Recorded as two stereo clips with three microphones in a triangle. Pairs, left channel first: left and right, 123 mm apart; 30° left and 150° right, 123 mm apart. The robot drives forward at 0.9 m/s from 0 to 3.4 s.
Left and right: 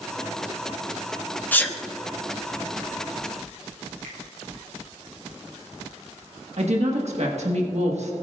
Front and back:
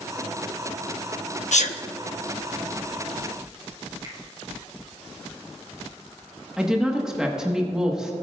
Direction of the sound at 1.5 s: 15° left.